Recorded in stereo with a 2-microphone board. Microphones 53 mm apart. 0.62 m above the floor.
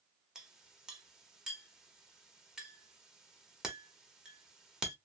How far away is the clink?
About 0.9 m.